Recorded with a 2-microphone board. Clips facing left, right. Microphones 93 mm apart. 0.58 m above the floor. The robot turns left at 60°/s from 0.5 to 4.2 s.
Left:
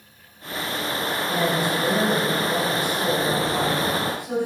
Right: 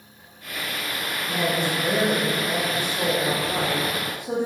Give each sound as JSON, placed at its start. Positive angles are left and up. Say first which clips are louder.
{"t": 1.3, "sound": "a woman speaking", "louder": "left 1 dB", "side_deg": 20, "distance_m": 0.7}